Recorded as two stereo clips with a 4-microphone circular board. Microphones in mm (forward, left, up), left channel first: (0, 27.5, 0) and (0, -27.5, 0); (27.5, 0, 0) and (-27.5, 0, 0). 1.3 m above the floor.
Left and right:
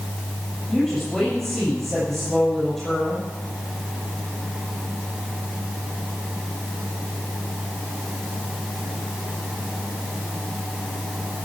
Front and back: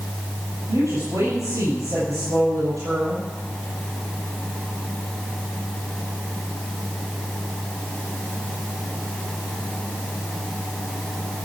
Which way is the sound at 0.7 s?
175° left.